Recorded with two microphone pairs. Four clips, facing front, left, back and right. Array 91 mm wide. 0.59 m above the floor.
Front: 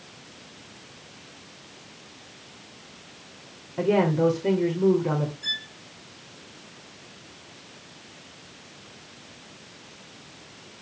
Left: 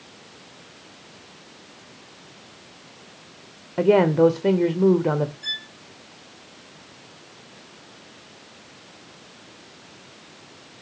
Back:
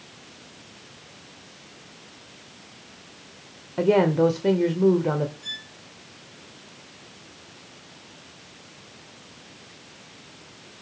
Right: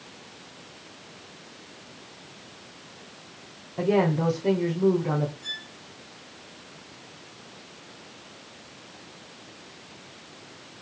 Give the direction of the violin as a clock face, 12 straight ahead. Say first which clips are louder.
Left 4 dB, front 4 dB; 10 o'clock.